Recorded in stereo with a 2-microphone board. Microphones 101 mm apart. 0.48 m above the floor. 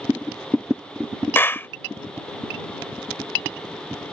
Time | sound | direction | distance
1.4 | a clap | 20° left (ahead or behind) | ?